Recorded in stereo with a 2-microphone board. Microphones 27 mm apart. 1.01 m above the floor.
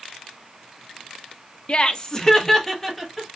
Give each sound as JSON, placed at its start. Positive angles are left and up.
{"t": 1.7, "sound": "laughter", "side_deg": 45, "distance_m": 0.6}